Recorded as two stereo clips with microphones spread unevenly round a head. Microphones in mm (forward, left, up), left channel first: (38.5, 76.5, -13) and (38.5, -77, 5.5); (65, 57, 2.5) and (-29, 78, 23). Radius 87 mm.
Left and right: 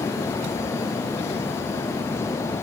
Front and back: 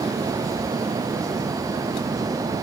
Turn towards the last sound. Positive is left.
No sound to turn to.